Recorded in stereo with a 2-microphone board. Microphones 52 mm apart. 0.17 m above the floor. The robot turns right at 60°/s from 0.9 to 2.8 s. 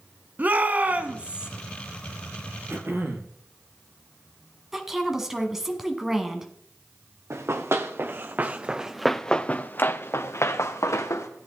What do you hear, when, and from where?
0.4 s a shout: 65° right, 1.2 m; by 1.5 s 25° right, 1.2 m
2.7 s throat clearing: 55° right (ahead or behind), 1.7 m; by 3.4 s 50° right (ahead or behind), 1.7 m
4.7 s a woman speaking: 5° right (ahead or behind), 1.6 m
7.3 s running footsteps: 60° right (ahead or behind), 1.8 m; by 11.3 s 70° left (ahead or behind), 2 m